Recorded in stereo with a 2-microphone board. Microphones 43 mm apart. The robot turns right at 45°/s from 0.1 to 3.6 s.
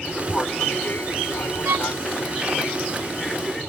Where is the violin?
85° right; by 1.9 s 75° right (ahead or behind).